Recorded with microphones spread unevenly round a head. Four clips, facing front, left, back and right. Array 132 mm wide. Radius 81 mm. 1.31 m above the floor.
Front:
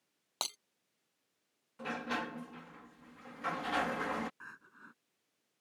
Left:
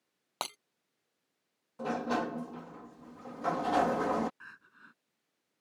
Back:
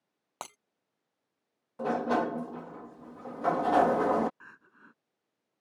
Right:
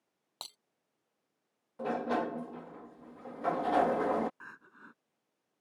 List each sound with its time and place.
0.4 s breaking glass: 75° left
1.8 s a sliding door: 155° right
4.4 s crying: 115° right